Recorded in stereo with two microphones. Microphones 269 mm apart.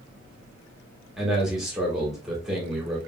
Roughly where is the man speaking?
Centre.